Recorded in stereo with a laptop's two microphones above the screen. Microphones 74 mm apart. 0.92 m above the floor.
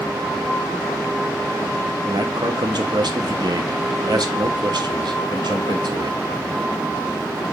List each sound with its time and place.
2.0 s a man speaking: 65° right (ahead or behind), 1.2 m